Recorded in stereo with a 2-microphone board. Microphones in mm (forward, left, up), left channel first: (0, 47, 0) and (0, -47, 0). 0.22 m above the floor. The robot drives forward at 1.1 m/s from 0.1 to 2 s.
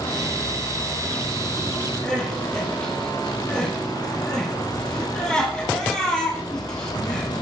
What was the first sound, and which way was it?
Crying, 10° left (ahead or behind).